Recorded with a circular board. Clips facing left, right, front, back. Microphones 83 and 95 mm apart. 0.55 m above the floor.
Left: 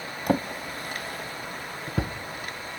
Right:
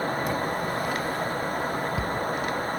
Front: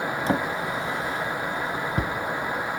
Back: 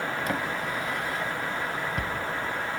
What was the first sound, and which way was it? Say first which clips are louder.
A drawer: even, front 4 dB; 60° left.